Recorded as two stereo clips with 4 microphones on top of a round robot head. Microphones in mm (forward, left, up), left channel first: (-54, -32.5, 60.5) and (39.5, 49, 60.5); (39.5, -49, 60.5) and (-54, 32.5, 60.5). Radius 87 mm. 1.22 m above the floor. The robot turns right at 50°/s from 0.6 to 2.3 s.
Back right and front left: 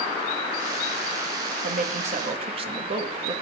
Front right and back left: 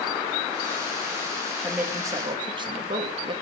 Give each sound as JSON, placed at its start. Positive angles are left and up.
{"t": 1.6, "sound": "a woman speaking", "azimuth_deg": 50, "distance_m": 1.9}